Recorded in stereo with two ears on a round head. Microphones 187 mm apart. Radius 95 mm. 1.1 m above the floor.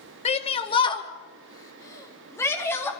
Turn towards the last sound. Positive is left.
turn(degrees=10)  # may be behind; listen again after turning